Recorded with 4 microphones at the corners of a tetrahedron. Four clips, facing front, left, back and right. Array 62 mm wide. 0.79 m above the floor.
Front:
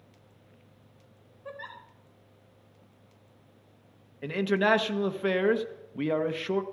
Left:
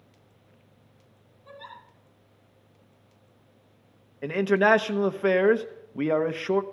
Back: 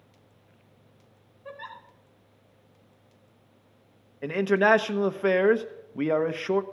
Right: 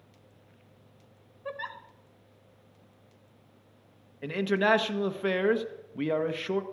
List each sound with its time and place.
1.4 s a giggle: 80° right, 2 m
4.2 s a man speaking: 135° left, 0.7 m